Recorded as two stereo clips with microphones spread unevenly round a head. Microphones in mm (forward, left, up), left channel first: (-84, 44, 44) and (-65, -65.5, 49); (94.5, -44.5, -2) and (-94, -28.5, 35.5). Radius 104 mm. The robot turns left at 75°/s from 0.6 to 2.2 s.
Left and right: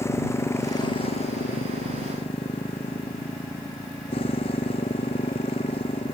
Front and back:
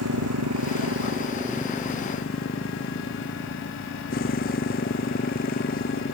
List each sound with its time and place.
0.0 s a motorcycle: 165° left; by 6.2 s 45° left